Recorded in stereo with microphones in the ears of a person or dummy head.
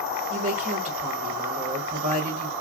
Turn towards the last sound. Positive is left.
turn(degrees=-35)  # may be behind; listen again after turning